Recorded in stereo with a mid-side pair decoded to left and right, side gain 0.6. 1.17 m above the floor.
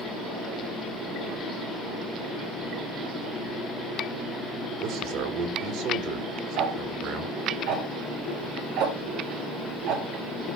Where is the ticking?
70° right, 3.5 m.